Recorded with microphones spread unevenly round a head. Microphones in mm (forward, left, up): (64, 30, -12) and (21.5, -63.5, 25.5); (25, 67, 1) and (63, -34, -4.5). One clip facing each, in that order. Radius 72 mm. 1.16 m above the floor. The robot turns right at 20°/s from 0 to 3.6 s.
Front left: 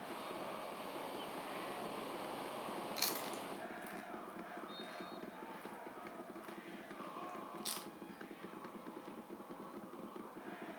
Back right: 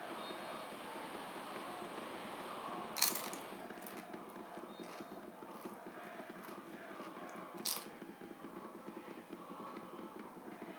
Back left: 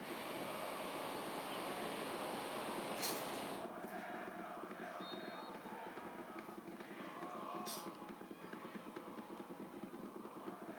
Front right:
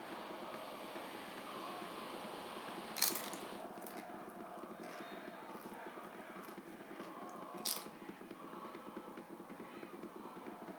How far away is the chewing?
About 0.9 m.